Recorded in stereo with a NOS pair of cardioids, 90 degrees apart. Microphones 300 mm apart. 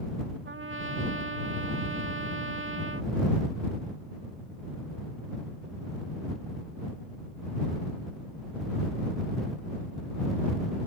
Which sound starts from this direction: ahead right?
A trumpet, at 0.5 s.